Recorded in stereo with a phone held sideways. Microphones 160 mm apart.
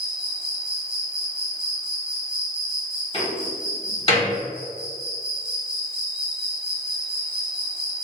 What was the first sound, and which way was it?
An insect, 30° right (ahead or behind).